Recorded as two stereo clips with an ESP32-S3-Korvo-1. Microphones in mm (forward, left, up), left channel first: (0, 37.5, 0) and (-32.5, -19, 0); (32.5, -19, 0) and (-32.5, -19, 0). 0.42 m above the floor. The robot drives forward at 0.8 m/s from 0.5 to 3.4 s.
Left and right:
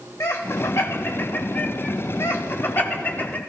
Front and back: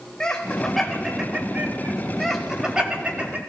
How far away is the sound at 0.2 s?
About 1.3 m.